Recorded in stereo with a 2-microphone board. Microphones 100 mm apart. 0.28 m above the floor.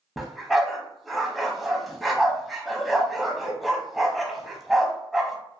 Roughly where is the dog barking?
Centre.